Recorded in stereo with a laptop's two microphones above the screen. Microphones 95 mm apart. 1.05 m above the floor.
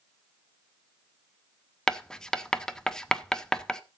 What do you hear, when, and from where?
1.9 s writing: 5° left (ahead or behind), 0.8 m